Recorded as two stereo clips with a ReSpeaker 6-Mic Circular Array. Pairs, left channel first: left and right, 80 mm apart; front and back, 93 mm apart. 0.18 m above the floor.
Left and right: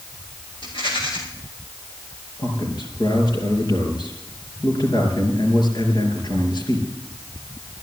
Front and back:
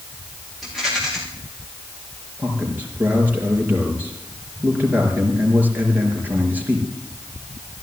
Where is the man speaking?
110° left, 4.5 m.